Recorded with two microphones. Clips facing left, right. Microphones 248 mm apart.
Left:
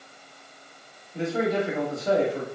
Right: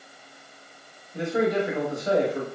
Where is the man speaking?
15° right (ahead or behind), 0.9 m.